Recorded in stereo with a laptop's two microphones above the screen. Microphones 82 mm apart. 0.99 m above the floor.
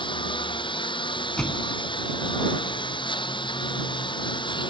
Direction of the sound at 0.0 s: 75° left (ahead or behind).